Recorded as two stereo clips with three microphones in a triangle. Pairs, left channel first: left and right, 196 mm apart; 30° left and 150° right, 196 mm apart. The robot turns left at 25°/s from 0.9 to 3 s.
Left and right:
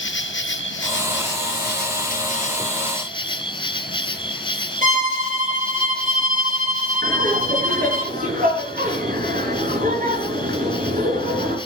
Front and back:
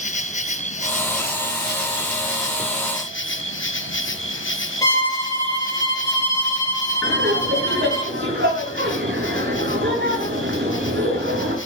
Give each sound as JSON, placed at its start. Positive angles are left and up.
{"t": 0.0, "sound": "an insect", "azimuth_deg": 80, "distance_m": 1.1}
{"t": 4.8, "sound": "a violin", "azimuth_deg": -45, "distance_m": 5.5}
{"t": 7.0, "sound": "laughter", "azimuth_deg": -130, "distance_m": 5.5}